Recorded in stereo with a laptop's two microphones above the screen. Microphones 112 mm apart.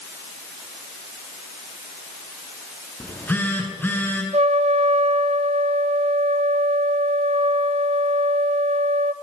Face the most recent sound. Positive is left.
turn(degrees=-80)